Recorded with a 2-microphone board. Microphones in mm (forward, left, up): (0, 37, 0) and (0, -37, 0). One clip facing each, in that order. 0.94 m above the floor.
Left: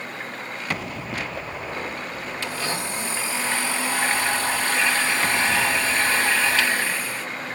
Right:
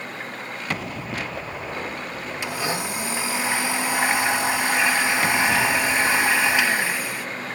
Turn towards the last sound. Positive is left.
turn(degrees=-15)  # may be behind; listen again after turning